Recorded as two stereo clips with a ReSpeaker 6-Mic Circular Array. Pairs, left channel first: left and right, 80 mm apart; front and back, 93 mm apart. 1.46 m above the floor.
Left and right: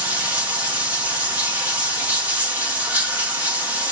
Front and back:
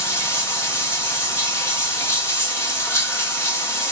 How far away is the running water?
About 1.2 m.